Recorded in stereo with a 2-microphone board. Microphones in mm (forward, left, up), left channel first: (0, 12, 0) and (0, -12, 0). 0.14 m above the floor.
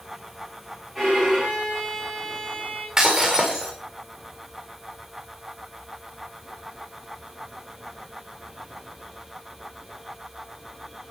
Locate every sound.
0.9 s a violin: 5° left (ahead or behind), 9 m
3.0 s breaking glass: 20° right (ahead or behind), 7.5 m